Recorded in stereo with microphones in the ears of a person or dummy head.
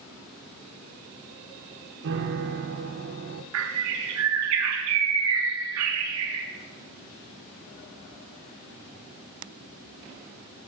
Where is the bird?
75° right (ahead or behind), 0.6 m.